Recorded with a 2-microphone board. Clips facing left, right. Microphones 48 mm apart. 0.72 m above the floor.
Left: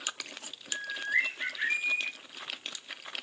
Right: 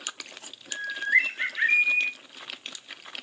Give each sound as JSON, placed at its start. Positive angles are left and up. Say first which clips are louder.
{"t": 0.7, "sound": "a bird", "louder": "right 6 dB", "side_deg": -60, "distance_m": 0.5}